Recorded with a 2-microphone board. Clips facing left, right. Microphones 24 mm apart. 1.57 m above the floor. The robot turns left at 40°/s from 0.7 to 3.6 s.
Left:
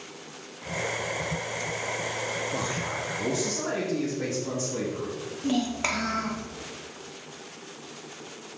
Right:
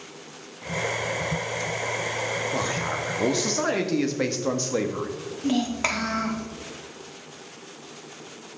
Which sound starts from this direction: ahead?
A man speaking, at 2.5 s.